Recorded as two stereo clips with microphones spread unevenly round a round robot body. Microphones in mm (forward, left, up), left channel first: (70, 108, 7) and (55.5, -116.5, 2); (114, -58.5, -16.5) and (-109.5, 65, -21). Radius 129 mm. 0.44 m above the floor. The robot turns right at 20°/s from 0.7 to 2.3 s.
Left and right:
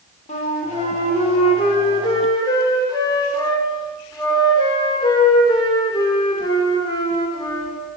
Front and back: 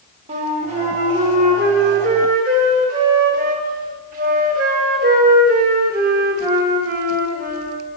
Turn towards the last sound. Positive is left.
turn(degrees=145)